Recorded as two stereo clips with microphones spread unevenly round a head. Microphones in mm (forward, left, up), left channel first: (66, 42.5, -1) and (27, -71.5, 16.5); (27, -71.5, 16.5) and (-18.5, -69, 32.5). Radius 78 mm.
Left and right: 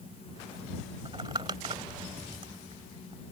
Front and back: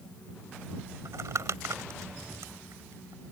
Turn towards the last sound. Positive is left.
turn(degrees=-175)